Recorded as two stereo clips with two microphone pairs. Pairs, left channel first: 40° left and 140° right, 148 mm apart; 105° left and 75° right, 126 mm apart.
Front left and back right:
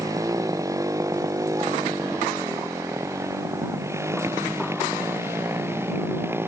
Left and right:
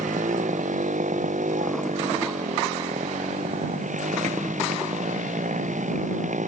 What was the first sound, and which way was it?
A motorcycle, 70° right.